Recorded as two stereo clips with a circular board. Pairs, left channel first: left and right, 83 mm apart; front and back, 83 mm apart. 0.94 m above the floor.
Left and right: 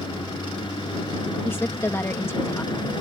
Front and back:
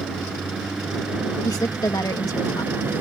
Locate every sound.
0.0 s a vehicle: 90° left; by 3.0 s 115° left
1.4 s a woman speaking: 35° left